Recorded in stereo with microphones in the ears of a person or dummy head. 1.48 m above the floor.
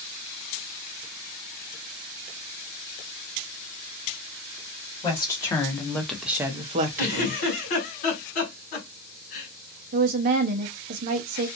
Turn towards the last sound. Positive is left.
turn(degrees=-45)  # may be behind; listen again after turning